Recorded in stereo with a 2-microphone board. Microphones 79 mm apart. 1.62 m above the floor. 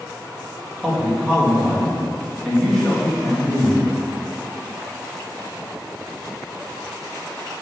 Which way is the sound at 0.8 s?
5° left (ahead or behind).